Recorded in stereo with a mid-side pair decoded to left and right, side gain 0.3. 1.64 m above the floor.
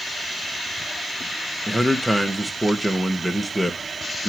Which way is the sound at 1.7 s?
Straight ahead.